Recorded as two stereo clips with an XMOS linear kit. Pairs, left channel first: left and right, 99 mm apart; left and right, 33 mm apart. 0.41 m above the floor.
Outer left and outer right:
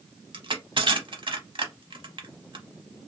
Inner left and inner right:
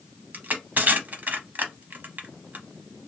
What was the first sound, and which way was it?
Crushing, 60° right (ahead or behind).